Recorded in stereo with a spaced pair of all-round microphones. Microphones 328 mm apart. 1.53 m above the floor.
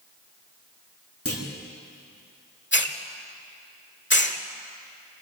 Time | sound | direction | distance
1.2 | a clunk | 45° left (ahead or behind) | 3.5 m
2.7 | a hiss | 35° left (ahead or behind) | 1.4 m